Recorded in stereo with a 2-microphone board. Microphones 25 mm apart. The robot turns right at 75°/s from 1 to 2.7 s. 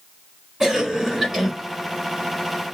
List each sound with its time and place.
0.6 s a cough: 20° right (ahead or behind), 1.2 m; by 1.5 s 5° right (ahead or behind), 1.2 m